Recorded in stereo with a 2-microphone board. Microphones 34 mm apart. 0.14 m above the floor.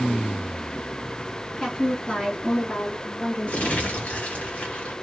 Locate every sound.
1.6 s a woman speaking: 15° left (ahead or behind), 1.5 m; by 3.9 s 50° left (ahead or behind), 3 m
3.5 s crumpling: 40° left (ahead or behind), 2 m